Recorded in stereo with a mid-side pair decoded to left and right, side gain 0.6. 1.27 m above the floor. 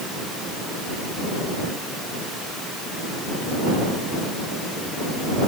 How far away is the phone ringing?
No phone ringing in this recording.